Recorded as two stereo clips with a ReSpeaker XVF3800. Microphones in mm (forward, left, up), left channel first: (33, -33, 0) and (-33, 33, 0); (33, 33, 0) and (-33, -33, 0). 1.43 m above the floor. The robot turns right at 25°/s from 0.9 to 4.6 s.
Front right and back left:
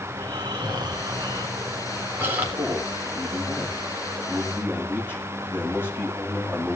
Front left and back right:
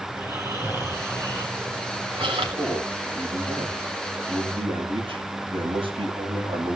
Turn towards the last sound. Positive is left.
turn(degrees=-115)